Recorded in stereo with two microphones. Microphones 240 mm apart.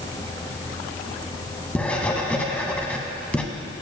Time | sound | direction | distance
1.8 | writing | 5° left (ahead or behind) | 0.9 m